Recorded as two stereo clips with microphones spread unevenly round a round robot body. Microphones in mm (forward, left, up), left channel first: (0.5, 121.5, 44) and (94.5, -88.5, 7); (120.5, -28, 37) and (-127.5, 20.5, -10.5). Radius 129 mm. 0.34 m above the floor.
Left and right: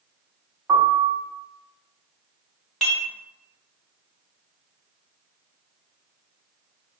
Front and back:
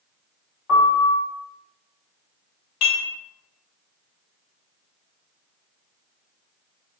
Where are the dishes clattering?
20° left, 1.1 m.